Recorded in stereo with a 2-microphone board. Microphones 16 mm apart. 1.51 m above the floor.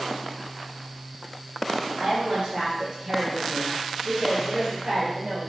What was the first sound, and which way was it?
A woman speaking, 80° right.